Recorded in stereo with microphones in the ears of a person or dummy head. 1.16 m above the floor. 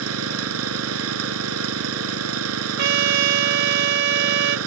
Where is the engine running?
85° right.